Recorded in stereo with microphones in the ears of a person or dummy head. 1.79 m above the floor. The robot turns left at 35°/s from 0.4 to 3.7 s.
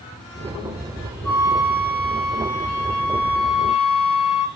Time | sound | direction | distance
1.2 | a flute | 145° left | 0.9 m